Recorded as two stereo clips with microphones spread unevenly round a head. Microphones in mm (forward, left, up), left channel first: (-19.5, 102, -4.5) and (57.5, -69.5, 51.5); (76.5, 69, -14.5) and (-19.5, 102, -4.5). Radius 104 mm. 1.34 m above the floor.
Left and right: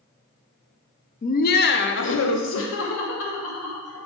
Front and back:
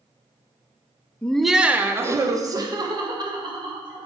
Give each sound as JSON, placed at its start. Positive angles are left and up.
{"t": 1.2, "sound": "laughter", "azimuth_deg": 60, "distance_m": 0.7}